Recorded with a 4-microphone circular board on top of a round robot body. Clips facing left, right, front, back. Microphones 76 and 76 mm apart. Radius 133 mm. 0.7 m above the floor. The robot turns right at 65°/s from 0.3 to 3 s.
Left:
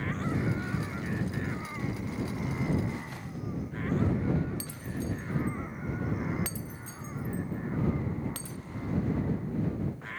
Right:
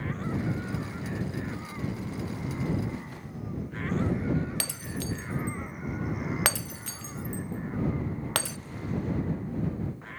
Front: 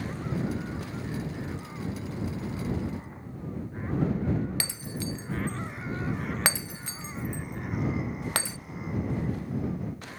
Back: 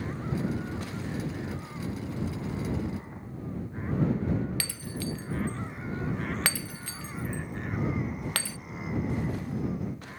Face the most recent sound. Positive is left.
turn(degrees=-70)